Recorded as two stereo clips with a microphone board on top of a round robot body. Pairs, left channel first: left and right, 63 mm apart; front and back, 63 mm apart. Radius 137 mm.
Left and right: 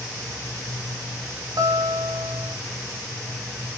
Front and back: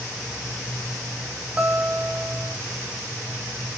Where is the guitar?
105° right, 1.4 m.